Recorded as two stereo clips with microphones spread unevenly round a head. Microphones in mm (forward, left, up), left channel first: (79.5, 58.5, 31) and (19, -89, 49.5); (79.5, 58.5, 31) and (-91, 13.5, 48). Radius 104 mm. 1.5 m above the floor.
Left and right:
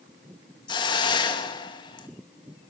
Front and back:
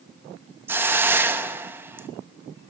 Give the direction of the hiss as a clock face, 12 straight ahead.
8 o'clock.